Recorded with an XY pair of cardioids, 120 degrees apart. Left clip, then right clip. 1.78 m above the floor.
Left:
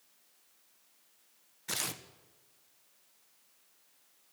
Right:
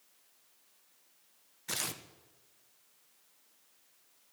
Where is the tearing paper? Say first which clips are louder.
Left 1 dB; 5° left, 1.5 m.